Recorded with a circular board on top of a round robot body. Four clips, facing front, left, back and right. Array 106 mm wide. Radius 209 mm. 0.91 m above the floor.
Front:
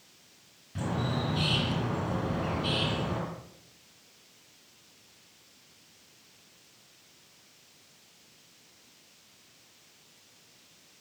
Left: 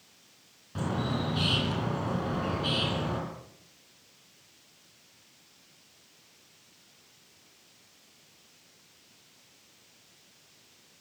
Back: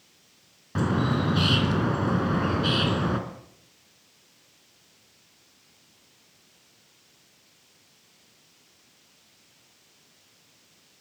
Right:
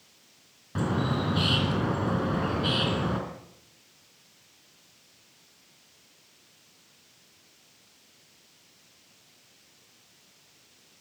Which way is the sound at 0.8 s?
160° right.